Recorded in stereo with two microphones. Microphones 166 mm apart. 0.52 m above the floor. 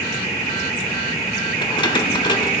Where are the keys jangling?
30° left (ahead or behind), 1.1 m.